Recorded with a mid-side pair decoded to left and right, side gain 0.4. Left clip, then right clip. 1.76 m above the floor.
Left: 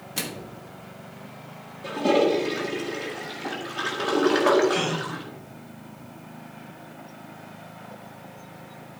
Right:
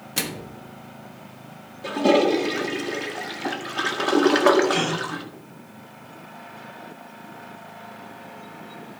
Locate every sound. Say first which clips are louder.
0.2 s a microwave: right 4 dB; 35° right, 1.1 m
1.8 s a toilet flushing: right 2 dB; 40° right, 1.9 m
4.7 s a gasp: right 2 dB; 30° right, 2.5 m